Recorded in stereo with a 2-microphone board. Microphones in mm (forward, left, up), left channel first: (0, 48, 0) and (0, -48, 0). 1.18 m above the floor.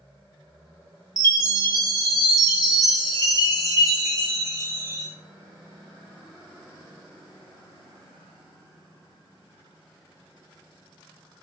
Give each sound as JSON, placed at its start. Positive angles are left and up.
{"t": 1.2, "sound": "a chime", "side_deg": 35, "distance_m": 0.7}